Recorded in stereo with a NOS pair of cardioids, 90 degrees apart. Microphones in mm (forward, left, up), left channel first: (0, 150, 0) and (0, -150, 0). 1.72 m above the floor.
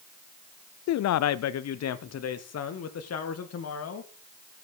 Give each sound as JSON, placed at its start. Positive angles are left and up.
{"t": 0.9, "sound": "a man speaking", "azimuth_deg": 65, "distance_m": 0.5}